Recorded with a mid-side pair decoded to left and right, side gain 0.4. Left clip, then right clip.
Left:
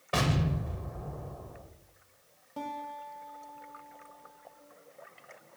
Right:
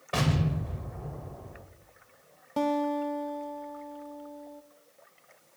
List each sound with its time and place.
0.1 s an explosion: 10° left, 2.5 m
2.6 s a guitar: 70° right, 0.6 m